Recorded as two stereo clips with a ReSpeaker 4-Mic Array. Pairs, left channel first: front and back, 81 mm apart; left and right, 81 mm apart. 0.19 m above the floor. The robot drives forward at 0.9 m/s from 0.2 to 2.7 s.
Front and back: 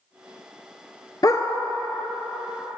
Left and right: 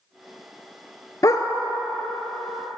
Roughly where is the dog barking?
Ahead left.